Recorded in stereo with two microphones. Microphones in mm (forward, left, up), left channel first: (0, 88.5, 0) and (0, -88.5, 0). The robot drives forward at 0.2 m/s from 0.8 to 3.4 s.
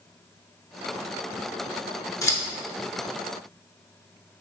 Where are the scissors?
15° left (ahead or behind), 0.8 m.